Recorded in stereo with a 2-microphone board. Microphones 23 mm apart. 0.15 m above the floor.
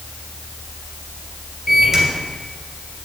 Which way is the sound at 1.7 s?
25° right (ahead or behind).